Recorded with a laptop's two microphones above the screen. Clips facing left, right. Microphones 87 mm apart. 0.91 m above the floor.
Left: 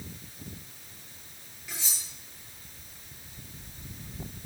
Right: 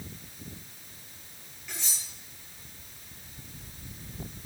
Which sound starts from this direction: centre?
Cutlery clinking, at 1.7 s.